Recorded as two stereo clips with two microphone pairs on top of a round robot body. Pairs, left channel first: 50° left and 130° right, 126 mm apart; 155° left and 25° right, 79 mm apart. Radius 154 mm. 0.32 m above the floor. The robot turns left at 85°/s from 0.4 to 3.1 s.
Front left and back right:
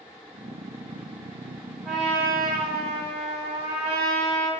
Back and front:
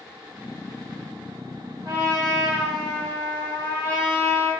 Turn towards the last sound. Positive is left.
turn(degrees=-140)